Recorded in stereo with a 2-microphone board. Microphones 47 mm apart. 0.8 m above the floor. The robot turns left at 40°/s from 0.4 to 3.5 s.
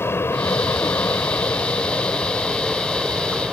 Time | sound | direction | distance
0.0 | an aircraft | 100° left | ?